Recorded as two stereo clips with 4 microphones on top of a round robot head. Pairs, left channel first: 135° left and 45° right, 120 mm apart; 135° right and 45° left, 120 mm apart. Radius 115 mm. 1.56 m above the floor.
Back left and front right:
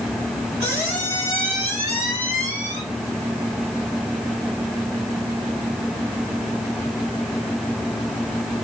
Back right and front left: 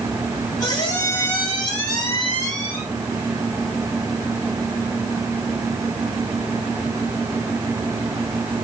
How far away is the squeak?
About 1.3 m.